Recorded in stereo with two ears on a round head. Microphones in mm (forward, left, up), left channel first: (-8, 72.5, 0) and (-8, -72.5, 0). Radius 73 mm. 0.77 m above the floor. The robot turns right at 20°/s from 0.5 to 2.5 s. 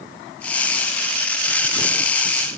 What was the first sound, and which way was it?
Only background noise.